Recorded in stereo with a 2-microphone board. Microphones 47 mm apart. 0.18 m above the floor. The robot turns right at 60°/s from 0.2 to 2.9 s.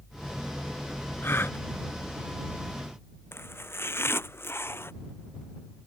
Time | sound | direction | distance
1.2 | a gasp | 60° left (ahead or behind) | ?
3.3 | chopping | 60° left (ahead or behind) | ?